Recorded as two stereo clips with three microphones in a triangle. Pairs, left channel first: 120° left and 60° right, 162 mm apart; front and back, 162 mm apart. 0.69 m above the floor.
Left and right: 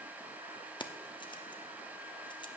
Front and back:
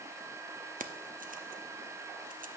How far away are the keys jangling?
About 0.7 m.